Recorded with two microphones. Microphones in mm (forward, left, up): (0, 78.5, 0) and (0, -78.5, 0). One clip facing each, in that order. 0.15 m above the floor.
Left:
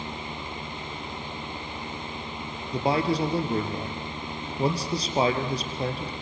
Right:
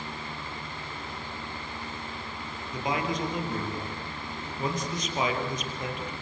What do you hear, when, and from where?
2.7 s a man speaking: 35° left (ahead or behind), 3 m